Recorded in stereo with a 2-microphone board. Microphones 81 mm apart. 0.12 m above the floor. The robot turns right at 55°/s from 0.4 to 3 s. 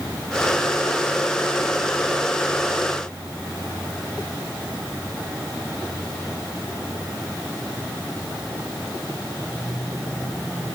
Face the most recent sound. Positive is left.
No sound to turn to.